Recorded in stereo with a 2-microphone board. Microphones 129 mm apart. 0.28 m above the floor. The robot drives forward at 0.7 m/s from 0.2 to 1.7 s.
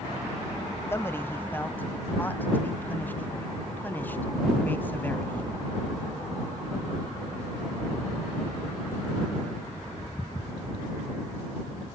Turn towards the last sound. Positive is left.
turn(degrees=15)  # may be behind; listen again after turning